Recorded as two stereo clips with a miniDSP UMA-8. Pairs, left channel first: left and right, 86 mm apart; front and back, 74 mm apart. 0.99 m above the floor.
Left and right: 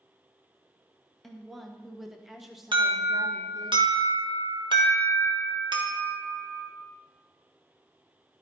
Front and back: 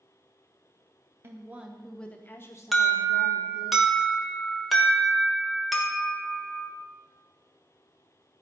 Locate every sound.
1.2 s a woman speaking: 175° left, 0.9 m; by 3.7 s 5° right, 1.6 m
2.7 s an alarm: 90° right, 1.4 m